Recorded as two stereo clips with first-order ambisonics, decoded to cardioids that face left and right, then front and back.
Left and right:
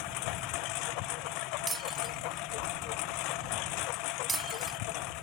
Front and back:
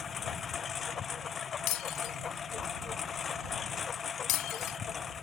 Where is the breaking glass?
20° right.